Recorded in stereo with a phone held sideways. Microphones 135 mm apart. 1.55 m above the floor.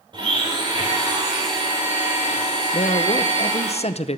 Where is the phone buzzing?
I don't hear a phone buzzing.